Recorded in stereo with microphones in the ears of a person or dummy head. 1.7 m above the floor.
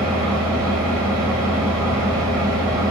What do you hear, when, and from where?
0.0 s an engine running: 15° right (ahead or behind), 1.1 m